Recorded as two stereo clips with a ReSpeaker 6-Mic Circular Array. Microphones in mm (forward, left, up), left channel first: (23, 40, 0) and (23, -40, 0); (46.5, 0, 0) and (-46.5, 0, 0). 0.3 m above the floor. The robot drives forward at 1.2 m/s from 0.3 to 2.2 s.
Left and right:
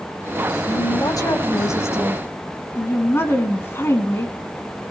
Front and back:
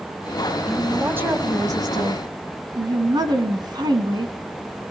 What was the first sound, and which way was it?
A woman speaking, 95° left.